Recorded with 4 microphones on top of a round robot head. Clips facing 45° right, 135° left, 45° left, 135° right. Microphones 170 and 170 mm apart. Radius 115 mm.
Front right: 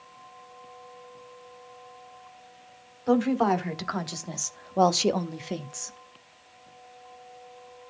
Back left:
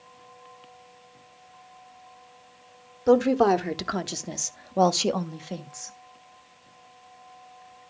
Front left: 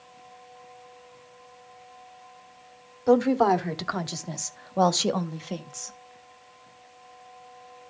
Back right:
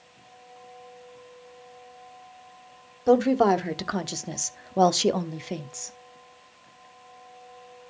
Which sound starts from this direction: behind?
A woman speaking, at 3.1 s.